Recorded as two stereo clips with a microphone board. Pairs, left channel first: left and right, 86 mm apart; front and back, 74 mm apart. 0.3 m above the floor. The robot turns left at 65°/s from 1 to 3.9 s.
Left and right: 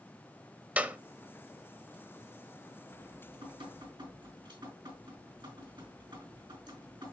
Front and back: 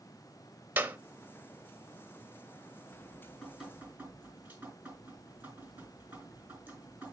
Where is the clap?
150° right, 0.7 m.